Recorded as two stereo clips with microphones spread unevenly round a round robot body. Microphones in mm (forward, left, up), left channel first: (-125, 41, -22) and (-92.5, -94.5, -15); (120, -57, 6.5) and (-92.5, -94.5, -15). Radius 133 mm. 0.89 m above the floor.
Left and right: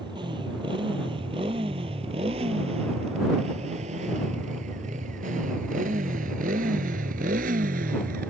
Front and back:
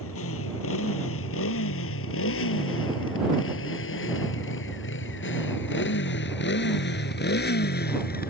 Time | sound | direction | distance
0.0 | a motorcycle | 5° right | ?